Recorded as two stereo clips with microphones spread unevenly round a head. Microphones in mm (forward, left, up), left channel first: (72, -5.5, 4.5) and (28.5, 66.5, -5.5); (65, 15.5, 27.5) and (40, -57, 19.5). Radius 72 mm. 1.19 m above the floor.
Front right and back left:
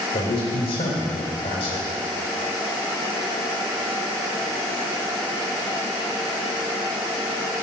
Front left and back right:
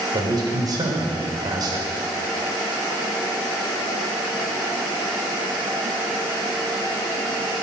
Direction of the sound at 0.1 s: 75° right.